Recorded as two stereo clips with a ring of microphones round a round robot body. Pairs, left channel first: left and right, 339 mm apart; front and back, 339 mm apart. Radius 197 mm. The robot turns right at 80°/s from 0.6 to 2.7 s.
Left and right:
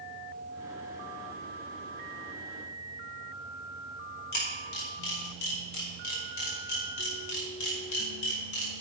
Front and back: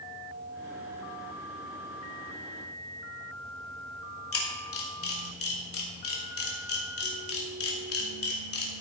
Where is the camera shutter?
50° left, 2.5 m.